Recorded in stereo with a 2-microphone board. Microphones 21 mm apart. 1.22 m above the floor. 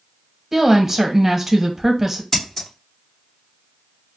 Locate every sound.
0.5 s a woman speaking: 15° right (ahead or behind), 1.0 m
2.3 s scissors: 15° left (ahead or behind), 1.3 m